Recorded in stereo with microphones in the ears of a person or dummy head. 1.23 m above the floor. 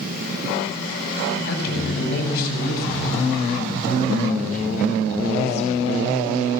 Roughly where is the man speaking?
Left.